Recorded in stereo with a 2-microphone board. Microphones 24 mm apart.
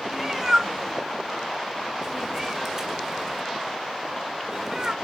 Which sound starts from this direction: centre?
A cat meowing, at 0.1 s.